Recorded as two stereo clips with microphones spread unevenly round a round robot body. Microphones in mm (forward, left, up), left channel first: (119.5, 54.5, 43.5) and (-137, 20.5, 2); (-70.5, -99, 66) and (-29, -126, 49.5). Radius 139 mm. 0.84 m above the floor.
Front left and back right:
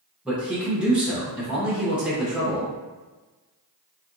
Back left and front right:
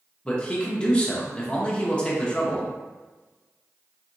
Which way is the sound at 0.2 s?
120° right.